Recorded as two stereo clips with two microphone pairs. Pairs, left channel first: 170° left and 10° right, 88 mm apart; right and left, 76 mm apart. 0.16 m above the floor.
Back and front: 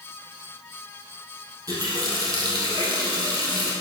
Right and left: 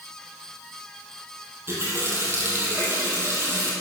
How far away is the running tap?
About 3 m.